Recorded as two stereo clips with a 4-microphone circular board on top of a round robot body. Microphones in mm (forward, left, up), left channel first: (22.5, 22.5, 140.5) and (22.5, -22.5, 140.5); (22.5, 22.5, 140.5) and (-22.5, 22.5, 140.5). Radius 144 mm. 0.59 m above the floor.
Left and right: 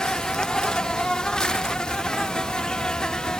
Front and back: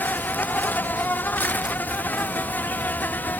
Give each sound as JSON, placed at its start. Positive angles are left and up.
{"t": 0.0, "sound": "an insect", "azimuth_deg": 25}